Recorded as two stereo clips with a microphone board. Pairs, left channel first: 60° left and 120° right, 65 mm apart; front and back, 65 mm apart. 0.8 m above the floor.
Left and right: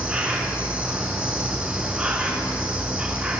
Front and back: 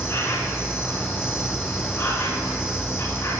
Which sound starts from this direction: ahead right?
An insect, at 0.0 s.